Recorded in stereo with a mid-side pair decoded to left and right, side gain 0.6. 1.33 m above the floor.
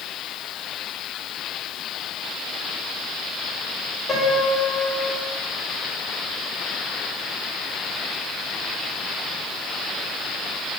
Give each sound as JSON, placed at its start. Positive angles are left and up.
{"t": 4.1, "sound": "a piano", "azimuth_deg": 20, "distance_m": 3.0}